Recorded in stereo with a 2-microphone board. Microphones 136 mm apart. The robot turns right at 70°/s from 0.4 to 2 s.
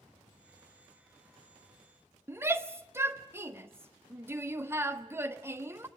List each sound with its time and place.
2.3 s a shout: 20° right (ahead or behind), 1.3 m